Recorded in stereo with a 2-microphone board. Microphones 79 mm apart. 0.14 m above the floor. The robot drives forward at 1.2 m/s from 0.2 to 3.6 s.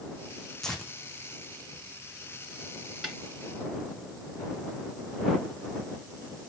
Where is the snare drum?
5° right (ahead or behind), 1.8 m.